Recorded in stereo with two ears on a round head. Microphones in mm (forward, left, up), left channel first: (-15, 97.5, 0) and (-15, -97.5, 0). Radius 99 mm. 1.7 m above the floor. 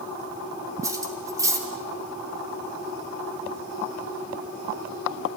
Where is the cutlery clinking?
15° right (ahead or behind), 3 m.